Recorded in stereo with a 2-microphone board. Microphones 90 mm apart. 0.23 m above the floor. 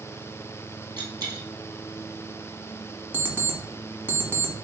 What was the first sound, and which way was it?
A dropped coin, 45° right (ahead or behind).